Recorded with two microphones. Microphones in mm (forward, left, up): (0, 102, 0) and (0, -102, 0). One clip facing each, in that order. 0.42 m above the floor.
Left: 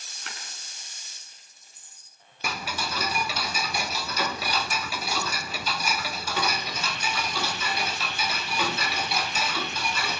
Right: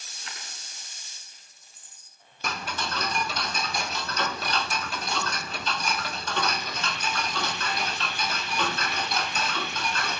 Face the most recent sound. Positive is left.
turn(degrees=10)  # may be behind; listen again after turning